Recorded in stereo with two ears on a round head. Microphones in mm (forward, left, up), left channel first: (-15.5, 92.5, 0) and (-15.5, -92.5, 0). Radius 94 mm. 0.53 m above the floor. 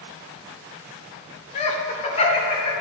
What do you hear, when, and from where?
1.6 s laughter: 30° left (ahead or behind), 1.0 m